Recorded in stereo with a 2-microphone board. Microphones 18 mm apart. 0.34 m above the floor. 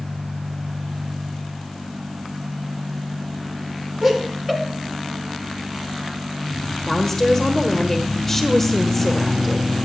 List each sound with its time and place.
4.0 s laughter: 15° right (ahead or behind), 3 m
6.9 s a woman speaking: 15° left (ahead or behind), 1.1 m